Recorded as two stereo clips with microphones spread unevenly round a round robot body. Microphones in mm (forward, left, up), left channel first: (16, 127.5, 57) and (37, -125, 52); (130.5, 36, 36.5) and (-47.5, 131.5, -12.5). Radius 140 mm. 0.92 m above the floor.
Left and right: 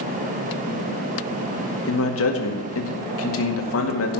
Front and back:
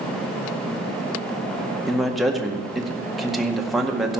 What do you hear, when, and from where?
1.9 s a man speaking: 70° left, 2 m